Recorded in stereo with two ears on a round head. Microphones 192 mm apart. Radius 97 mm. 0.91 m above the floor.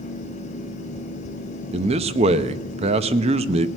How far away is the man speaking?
About 0.7 m.